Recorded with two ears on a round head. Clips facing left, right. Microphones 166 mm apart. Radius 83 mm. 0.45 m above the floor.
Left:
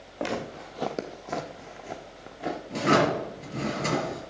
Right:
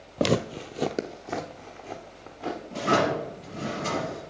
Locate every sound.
0.2 s footsteps: 60° right (ahead or behind), 0.7 m; by 2.6 s 15° left (ahead or behind), 2 m
2.7 s a drawer: 80° left, 4 m